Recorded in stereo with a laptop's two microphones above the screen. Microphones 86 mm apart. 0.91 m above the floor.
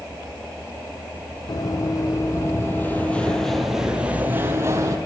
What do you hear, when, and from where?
1.5 s running footsteps: 45° left (ahead or behind), 2.0 m; by 5.0 s 35° right (ahead or behind), 1.5 m